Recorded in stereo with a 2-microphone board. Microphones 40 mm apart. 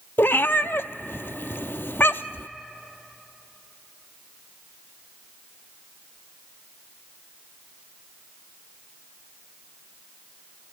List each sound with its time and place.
0.2 s a cat meowing: 75° left (ahead or behind), 0.6 m